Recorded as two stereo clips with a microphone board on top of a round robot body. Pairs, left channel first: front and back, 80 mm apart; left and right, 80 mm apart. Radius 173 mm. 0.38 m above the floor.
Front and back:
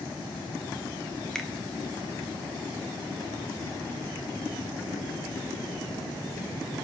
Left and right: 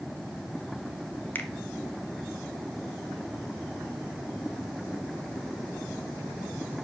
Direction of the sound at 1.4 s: 75° left.